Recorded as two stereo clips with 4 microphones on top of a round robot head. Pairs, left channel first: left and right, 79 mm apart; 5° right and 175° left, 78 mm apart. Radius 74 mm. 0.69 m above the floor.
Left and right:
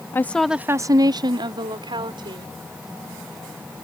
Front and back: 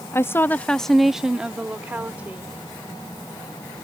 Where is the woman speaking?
40° left; by 2.5 s 110° right.